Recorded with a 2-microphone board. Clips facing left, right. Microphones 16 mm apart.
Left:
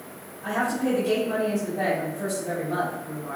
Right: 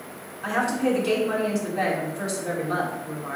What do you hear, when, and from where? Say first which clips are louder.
0.4 s a woman speaking: right 2 dB; 50° right (ahead or behind), 3 m